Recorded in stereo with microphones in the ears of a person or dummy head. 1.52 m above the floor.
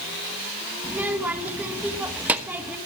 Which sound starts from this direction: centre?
A child speaking, at 0.8 s.